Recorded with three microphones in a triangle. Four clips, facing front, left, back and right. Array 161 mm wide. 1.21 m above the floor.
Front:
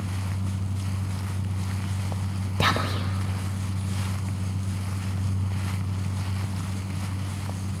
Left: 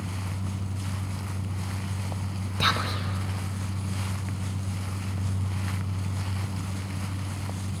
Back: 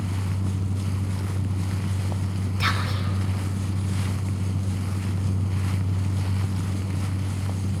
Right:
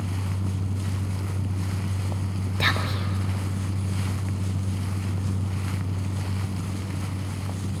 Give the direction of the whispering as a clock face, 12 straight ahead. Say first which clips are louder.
Even, front 4 dB; 12 o'clock.